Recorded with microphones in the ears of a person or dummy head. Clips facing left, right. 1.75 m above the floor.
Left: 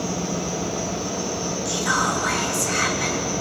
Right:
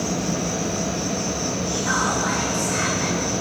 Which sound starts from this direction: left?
Whispering, at 1.6 s.